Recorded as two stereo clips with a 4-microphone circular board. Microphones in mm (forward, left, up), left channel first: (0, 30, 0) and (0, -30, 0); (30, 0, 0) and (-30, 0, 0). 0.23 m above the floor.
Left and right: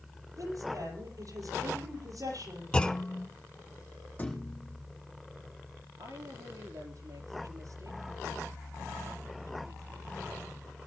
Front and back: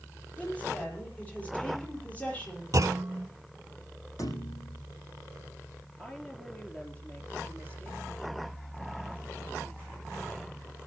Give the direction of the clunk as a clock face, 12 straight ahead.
7 o'clock.